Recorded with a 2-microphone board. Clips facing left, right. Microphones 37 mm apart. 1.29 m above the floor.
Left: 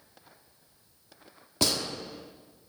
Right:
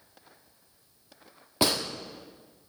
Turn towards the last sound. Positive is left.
turn(degrees=-20)  # may be behind; listen again after turning